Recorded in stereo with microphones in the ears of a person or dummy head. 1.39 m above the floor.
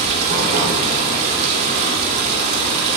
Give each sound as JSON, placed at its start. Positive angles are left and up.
{"t": 0.0, "sound": "running water", "side_deg": -55, "distance_m": 2.5}